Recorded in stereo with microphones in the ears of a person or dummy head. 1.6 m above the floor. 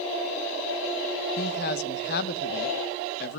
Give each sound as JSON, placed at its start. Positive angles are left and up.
{"t": 1.4, "sound": "a man speaking", "side_deg": 60, "distance_m": 1.5}